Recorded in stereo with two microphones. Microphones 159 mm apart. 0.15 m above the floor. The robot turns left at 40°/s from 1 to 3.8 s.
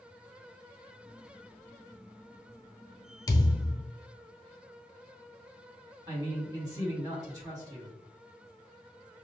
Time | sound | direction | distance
3.3 | a thud | 25° left (ahead or behind) | 0.8 m
6.1 | a man speaking | 25° right (ahead or behind) | 1.8 m